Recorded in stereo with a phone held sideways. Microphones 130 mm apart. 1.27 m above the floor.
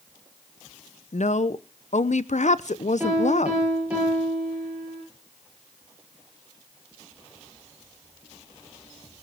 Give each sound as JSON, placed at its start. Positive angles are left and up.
{"t": 1.1, "sound": "a woman speaking", "side_deg": 65, "distance_m": 0.6}
{"t": 3.0, "sound": "a piano", "side_deg": -10, "distance_m": 8.0}